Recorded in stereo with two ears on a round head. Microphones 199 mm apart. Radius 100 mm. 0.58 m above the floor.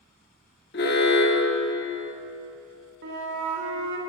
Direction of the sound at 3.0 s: 55° right (ahead or behind).